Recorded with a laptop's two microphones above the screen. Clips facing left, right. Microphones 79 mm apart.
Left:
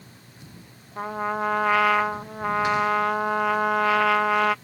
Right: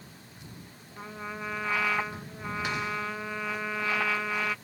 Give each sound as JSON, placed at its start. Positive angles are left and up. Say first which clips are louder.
{"t": 1.0, "sound": "a trumpet", "louder": "left 12 dB", "side_deg": 70}